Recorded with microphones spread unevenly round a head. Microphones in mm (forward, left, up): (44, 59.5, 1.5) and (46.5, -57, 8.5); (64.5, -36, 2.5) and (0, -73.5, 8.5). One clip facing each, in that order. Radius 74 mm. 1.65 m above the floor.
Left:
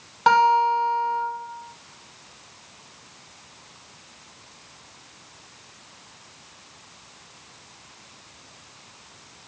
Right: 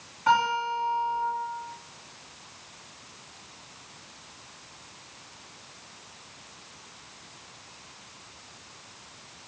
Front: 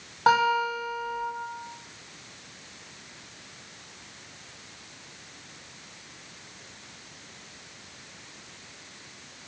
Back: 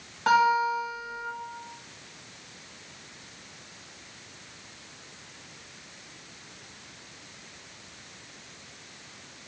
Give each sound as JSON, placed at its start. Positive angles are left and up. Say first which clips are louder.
{"t": 0.3, "sound": "a guitar", "louder": "left 7 dB, even", "azimuth_deg": 100, "distance_m": 2.0}